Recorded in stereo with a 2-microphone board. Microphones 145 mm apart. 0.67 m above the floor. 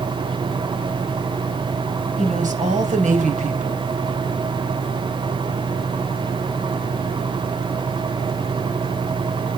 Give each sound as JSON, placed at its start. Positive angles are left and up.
{"t": 2.2, "sound": "a woman speaking", "side_deg": -55, "distance_m": 3.5}